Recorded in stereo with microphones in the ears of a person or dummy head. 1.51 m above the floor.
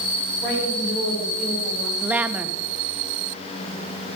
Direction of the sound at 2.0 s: 10° right (ahead or behind).